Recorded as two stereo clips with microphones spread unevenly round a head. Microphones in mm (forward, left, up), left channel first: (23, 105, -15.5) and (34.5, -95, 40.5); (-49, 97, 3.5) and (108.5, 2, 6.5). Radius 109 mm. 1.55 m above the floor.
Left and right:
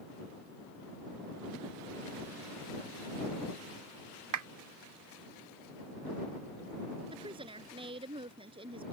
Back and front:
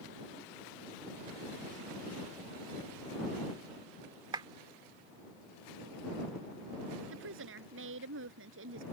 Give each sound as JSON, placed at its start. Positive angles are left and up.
{"t": 4.3, "sound": "a clap", "azimuth_deg": -100}
{"t": 7.1, "sound": "a woman speaking", "azimuth_deg": -25}